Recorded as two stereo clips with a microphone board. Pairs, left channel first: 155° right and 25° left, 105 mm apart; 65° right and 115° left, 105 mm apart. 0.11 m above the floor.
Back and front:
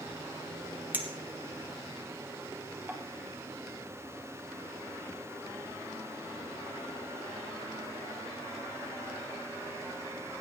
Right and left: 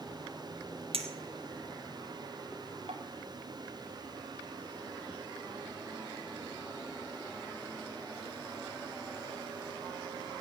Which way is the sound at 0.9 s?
95° left.